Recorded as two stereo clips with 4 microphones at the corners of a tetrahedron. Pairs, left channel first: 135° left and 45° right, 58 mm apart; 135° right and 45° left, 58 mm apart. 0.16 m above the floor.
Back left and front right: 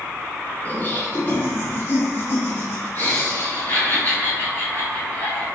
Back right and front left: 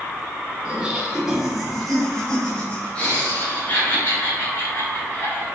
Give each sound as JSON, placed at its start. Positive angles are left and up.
{"t": 0.7, "sound": "laughter", "azimuth_deg": 100, "distance_m": 1.5}